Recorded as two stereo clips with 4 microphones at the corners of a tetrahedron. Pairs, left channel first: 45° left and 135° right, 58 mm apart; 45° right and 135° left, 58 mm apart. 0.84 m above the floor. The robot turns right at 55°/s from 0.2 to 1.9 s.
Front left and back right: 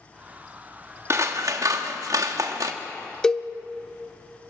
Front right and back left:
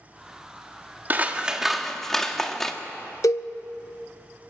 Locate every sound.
1.1 s scissors: 170° right, 1.4 m; by 2.7 s 130° right, 1.4 m
3.2 s a cowbell: 35° right, 0.8 m